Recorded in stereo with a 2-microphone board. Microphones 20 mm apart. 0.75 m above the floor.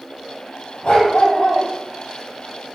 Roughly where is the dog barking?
Left.